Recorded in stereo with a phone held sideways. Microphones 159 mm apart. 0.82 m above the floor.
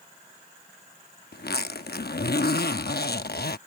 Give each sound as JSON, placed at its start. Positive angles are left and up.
{"t": 1.3, "sound": "a zipper", "side_deg": 80}